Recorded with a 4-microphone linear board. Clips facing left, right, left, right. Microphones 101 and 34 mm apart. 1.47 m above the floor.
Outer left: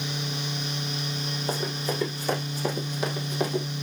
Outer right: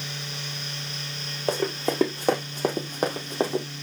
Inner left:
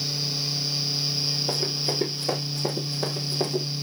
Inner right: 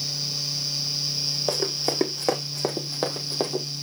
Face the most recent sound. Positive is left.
turn(degrees=-25)  # may be behind; listen again after turning